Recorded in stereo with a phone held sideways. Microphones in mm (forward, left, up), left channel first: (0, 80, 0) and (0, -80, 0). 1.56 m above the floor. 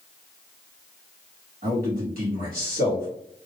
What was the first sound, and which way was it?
A man speaking, 70° right (ahead or behind).